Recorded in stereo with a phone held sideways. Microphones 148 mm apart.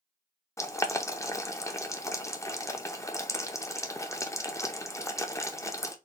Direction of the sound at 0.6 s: 20° left (ahead or behind).